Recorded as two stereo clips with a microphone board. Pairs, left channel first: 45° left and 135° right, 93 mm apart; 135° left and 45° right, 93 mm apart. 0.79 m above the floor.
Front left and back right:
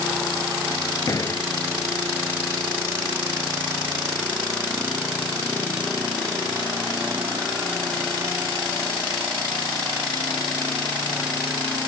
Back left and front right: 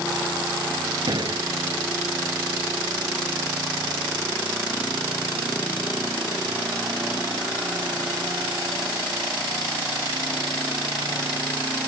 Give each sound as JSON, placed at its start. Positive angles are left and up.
{"t": 1.1, "sound": "a door slam", "azimuth_deg": -5}